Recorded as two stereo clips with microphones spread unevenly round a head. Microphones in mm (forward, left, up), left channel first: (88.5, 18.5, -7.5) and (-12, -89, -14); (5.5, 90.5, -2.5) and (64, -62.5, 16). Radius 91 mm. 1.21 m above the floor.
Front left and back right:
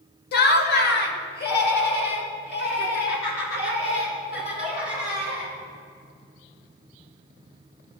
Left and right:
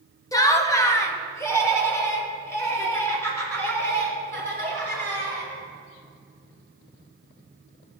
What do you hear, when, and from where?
0.3 s laughter: 45° left, 0.8 m; by 5.5 s 35° left, 4.5 m